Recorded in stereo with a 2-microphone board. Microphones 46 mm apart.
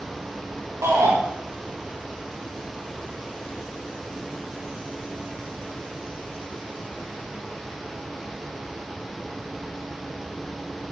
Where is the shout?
75° right (ahead or behind), 1.9 m.